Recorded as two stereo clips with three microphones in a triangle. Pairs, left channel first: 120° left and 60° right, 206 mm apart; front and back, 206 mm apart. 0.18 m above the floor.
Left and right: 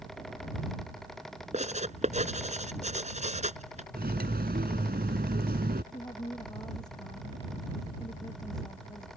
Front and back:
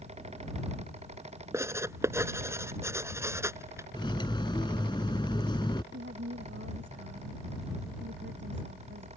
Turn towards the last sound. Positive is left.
turn(degrees=-170)